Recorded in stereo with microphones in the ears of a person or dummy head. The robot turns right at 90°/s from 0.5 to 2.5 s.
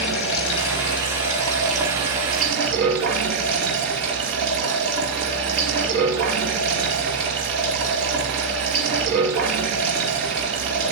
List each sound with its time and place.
0.0 s running water: 70° left, 2.5 m; by 10.9 s 110° right, 2.5 m